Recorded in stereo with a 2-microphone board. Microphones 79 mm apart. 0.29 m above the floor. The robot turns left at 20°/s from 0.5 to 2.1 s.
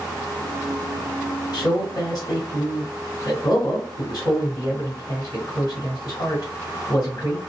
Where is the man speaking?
50° left (ahead or behind), 2 m; by 7.4 s 55° left (ahead or behind), 2 m.